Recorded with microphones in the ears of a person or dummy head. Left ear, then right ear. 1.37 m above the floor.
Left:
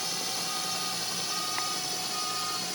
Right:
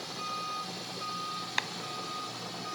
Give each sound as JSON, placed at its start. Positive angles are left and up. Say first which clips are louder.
{"t": 0.0, "sound": "a drone", "louder": "left 4 dB", "side_deg": 55}
{"t": 1.6, "sound": "a clap", "louder": "right 5 dB", "side_deg": -80}